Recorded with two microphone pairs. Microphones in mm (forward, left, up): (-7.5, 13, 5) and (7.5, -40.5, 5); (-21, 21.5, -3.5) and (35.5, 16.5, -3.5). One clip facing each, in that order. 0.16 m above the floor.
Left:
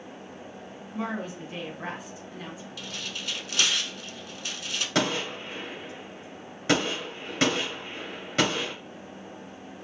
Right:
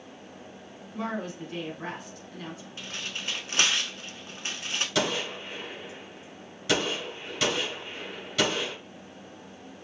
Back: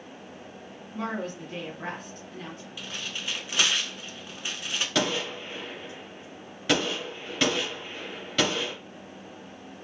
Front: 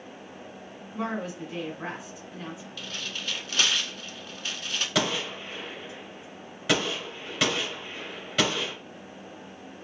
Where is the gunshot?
75° left, 2.5 m.